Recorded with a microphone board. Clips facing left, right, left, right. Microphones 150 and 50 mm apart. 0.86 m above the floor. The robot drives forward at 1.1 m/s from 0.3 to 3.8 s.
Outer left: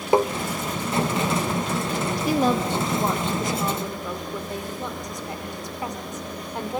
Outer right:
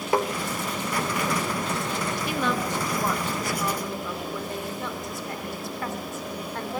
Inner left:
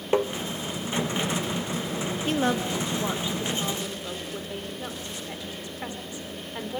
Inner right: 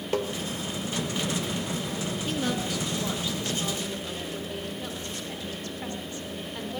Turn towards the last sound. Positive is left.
turn(degrees=20)  # may be behind; listen again after turning